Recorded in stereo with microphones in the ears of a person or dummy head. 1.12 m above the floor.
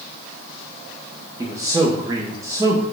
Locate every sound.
1.4 s a man speaking: 20° right (ahead or behind), 0.6 m